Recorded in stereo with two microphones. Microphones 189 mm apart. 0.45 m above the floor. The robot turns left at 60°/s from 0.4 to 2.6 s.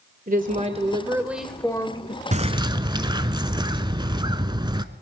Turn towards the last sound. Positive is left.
turn(degrees=-25)  # may be behind; listen again after turning